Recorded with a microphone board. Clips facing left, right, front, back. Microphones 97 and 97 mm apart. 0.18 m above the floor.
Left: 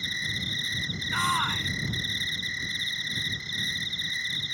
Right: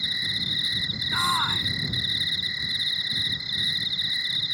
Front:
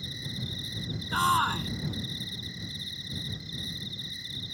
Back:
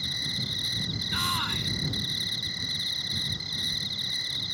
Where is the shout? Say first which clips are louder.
Right 1 dB, front 8 dB; 10° right.